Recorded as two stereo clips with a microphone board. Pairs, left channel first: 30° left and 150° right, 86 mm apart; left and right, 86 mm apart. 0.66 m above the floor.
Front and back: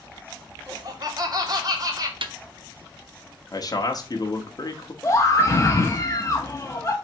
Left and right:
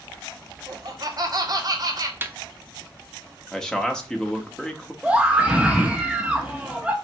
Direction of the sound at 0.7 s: 120° right.